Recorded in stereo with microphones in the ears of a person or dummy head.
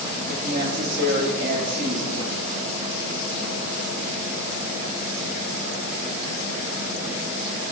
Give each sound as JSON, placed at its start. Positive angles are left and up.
{"t": 0.3, "sound": "a woman speaking", "side_deg": -50, "distance_m": 0.7}